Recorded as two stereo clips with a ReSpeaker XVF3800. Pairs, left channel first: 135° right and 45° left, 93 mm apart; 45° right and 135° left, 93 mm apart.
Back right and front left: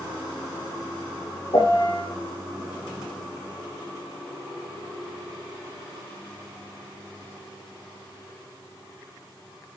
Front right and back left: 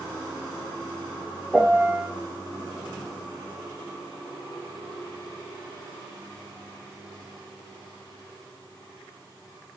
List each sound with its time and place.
1.5 s a piano: 145° right, 3.5 m